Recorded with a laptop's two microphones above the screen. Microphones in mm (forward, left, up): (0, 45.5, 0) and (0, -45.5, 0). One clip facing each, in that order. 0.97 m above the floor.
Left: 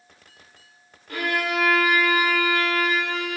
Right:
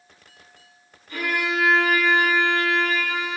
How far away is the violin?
About 1.4 m.